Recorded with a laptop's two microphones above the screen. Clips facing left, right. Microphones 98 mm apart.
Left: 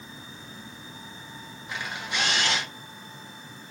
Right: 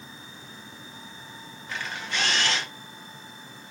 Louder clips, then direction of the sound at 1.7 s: Even; 15° left (ahead or behind).